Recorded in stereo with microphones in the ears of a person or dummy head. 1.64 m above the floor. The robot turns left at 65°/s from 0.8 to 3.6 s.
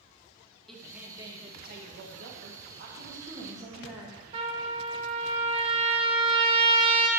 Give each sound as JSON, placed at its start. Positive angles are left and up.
{"t": 0.7, "sound": "a woman speaking", "azimuth_deg": 5, "distance_m": 2.0}
{"t": 3.0, "sound": "a woman speaking", "azimuth_deg": -125, "distance_m": 2.0}
{"t": 4.3, "sound": "a trumpet", "side_deg": -35, "distance_m": 1.1}